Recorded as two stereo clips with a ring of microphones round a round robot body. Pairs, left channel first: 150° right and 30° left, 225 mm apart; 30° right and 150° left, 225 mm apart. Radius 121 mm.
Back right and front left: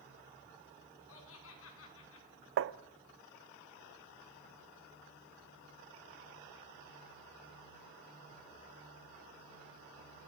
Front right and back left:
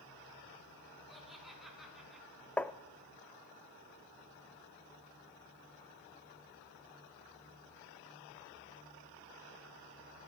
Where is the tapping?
55° left, 0.7 m.